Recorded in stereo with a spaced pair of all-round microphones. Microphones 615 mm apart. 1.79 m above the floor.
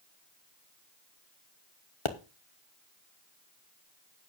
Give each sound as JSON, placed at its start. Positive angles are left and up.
{"t": 2.0, "sound": "a pop", "side_deg": 50, "distance_m": 1.1}